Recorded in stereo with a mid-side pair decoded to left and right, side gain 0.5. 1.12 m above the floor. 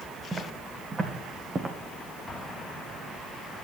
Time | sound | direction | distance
0.3 | footsteps | 25° right | 5 m
2.3 | an explosion | 25° left | 2.0 m